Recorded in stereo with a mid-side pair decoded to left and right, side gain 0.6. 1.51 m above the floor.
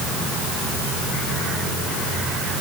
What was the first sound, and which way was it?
Only background noise.